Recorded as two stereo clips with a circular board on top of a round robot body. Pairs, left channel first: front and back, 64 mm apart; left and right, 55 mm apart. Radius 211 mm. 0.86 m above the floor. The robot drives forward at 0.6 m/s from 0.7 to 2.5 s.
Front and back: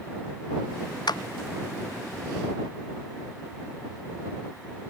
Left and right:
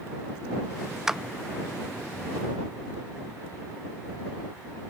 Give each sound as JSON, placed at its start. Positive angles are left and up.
{"t": 1.1, "sound": "a clap", "azimuth_deg": -10}